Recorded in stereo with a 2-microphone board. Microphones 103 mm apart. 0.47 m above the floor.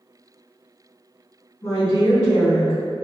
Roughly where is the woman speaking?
Left.